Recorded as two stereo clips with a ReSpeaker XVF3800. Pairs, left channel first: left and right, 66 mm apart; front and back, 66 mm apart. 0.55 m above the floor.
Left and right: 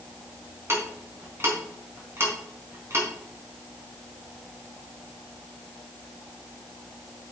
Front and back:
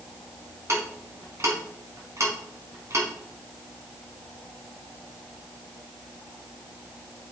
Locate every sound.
0.7 s ticking: 140° right, 3.5 m